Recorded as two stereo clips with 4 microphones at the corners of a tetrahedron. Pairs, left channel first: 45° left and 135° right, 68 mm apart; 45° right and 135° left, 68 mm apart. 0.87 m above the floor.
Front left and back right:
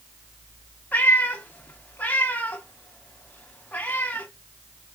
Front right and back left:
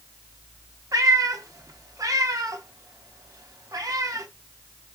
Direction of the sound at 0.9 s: 105° left.